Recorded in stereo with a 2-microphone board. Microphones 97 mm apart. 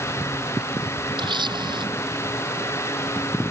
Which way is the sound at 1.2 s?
55° right (ahead or behind).